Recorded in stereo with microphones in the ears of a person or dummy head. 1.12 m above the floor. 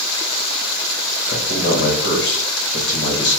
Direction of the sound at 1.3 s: 55° left (ahead or behind).